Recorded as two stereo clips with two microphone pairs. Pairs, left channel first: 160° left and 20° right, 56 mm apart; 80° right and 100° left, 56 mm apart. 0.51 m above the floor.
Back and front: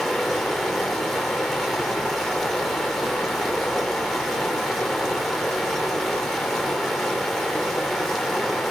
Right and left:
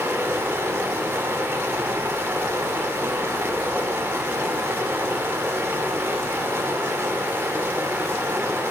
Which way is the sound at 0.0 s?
70° left.